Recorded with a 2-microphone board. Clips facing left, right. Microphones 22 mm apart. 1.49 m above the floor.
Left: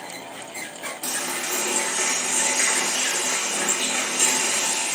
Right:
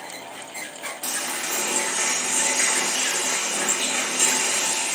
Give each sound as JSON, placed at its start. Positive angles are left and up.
{"t": 1.0, "sound": "a running tap", "side_deg": -15, "distance_m": 2.0}